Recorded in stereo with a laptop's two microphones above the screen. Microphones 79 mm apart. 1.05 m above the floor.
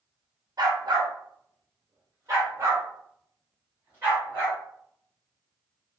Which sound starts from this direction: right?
A dog barking, at 0.6 s.